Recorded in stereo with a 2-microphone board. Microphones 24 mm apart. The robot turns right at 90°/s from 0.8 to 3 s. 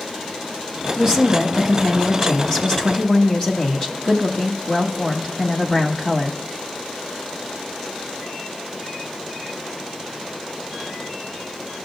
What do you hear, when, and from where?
1.0 s a woman speaking: 25° right (ahead or behind), 1.0 m; by 6.4 s 25° left (ahead or behind), 1.0 m